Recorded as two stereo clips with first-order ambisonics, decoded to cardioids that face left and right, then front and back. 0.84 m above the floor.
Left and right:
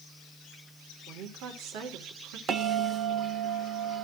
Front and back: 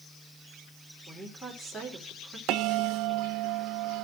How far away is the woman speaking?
About 3 m.